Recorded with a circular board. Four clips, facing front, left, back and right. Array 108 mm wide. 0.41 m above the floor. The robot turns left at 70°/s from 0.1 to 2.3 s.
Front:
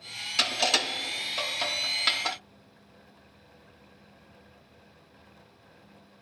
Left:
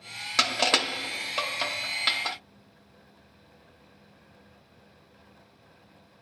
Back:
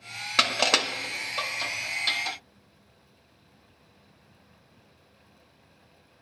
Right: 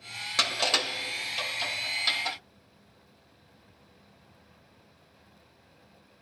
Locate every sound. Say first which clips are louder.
0.4 s crushing: left 4 dB, back 3 dB; 165° left, 0.8 m; by 2.4 s 30° left, 0.8 m